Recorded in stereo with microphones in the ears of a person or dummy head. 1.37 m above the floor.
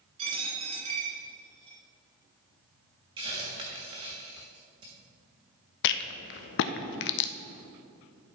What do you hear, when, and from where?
0.2 s a dropped coin: 35° right (ahead or behind), 2.0 m
3.2 s a hiss: 30° right (ahead or behind), 1.3 m
5.8 s a rattle: 65° left (ahead or behind), 0.5 m